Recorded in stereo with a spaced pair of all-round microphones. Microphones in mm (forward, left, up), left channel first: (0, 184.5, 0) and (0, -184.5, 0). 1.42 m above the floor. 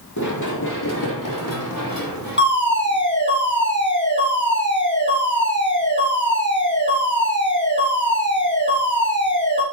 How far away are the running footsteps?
About 2.5 m.